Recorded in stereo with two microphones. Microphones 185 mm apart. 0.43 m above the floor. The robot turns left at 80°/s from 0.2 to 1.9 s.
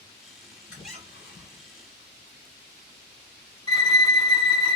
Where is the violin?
30° right (ahead or behind), 1.3 m.